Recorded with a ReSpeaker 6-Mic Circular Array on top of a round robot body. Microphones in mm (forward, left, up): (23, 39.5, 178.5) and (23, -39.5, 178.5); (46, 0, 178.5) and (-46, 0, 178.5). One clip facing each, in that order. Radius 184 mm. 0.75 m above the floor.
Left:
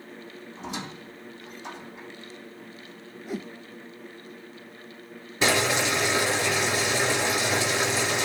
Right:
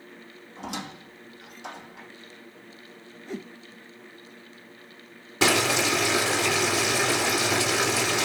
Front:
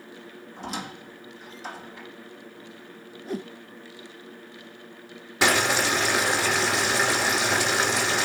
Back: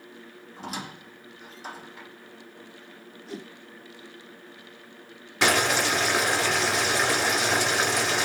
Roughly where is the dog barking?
I don't hear a dog barking.